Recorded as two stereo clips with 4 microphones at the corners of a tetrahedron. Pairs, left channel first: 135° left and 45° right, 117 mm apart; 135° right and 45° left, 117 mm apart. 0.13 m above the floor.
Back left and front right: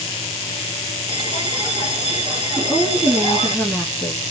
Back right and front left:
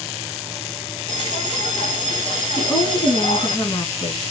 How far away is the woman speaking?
About 2 m.